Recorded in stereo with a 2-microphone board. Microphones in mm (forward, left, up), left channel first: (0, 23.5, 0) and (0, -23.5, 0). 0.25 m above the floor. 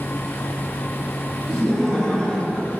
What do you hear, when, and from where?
1.5 s laughter: 5° left (ahead or behind), 3 m; by 2.7 s 25° left (ahead or behind), 1.5 m